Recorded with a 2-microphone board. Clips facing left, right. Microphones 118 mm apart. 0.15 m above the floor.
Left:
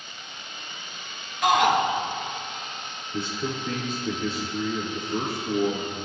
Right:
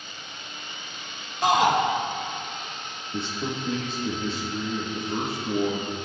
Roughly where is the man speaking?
Right.